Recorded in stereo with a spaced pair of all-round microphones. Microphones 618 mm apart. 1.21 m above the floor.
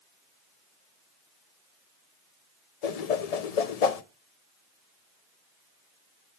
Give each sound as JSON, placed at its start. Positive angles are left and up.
{"t": 2.8, "sound": "a whoosh", "side_deg": 75, "distance_m": 0.7}